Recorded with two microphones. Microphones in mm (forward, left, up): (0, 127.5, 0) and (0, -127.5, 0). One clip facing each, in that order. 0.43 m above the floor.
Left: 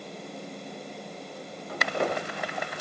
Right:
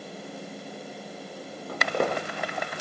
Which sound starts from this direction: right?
Footsteps, at 1.7 s.